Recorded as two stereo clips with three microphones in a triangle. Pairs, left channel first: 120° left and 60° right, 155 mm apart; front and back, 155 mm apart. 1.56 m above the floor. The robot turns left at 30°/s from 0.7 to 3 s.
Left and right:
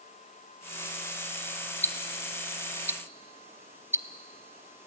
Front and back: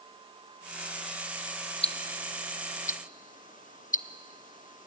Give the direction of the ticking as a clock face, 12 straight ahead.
10 o'clock.